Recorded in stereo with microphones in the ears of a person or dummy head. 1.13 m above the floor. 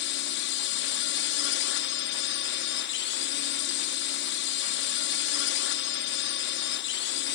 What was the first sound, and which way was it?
A drone, 55° left (ahead or behind).